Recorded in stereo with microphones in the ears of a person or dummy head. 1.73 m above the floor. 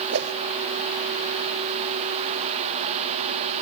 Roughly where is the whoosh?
Right.